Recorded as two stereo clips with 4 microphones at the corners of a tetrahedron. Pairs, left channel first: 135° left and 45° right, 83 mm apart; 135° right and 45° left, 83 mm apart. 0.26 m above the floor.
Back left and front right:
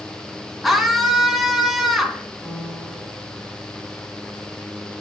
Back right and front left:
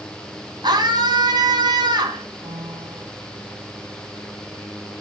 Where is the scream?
45° left, 2 m.